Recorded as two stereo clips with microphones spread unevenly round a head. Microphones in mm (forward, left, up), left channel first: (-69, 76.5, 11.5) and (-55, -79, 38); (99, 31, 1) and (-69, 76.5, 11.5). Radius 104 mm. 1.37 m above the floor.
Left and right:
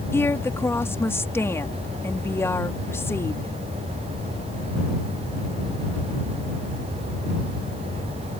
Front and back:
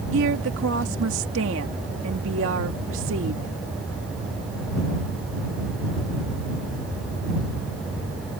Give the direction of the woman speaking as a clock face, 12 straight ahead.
6 o'clock.